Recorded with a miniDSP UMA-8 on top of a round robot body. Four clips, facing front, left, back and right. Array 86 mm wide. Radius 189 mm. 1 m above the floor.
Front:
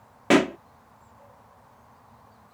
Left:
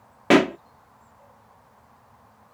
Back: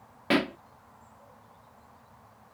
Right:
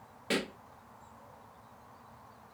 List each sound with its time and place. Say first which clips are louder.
0.3 s a pop: left 17 dB, front 7 dB; 70° left